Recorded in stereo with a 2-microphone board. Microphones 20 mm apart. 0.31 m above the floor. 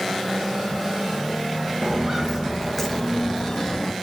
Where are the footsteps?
30° right (ahead or behind), 2.5 m; by 3.9 s 40° left (ahead or behind), 2.5 m.